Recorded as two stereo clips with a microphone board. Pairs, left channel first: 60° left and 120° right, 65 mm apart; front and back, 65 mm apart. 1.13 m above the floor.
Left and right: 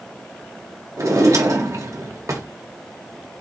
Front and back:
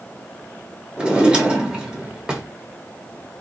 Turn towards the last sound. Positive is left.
turn(degrees=-105)